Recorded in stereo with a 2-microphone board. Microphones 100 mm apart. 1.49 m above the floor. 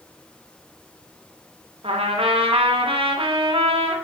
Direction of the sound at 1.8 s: 65° right (ahead or behind).